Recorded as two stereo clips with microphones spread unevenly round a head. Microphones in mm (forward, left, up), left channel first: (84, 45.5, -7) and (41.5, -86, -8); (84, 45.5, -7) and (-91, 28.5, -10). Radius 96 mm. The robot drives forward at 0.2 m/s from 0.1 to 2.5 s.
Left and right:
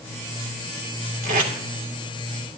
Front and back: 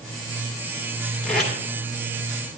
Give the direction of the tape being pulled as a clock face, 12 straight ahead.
3 o'clock.